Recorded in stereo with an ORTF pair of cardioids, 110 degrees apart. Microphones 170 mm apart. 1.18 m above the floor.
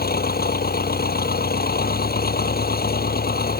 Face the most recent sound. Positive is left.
turn(degrees=65)